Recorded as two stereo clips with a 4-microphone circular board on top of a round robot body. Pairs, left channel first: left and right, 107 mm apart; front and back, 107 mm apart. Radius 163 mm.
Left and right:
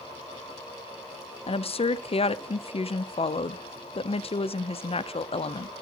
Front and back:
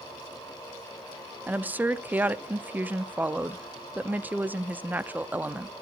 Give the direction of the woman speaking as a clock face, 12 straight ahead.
8 o'clock.